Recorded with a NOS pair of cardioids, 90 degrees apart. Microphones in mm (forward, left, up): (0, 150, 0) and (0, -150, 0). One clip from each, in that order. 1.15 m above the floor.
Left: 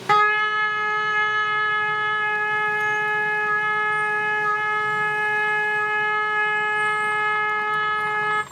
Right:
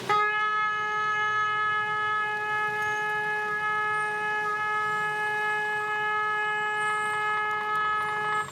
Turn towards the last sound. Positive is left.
turn(degrees=30)